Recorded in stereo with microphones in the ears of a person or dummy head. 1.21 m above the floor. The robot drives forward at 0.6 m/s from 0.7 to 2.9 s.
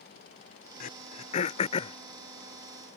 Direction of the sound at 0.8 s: 55° left (ahead or behind).